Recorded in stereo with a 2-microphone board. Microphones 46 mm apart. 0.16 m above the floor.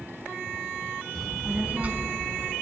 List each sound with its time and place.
1.1 s a child speaking: 10° left (ahead or behind), 0.6 m; by 2.5 s 55° right (ahead or behind), 1.0 m